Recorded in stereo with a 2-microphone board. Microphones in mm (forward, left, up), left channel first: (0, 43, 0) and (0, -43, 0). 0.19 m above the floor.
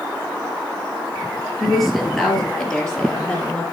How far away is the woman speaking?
About 3 m.